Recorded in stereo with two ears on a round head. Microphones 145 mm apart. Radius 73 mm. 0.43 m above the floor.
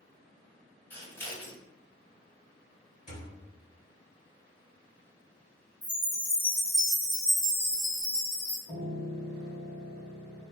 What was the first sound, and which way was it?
Scissors, 15° left (ahead or behind).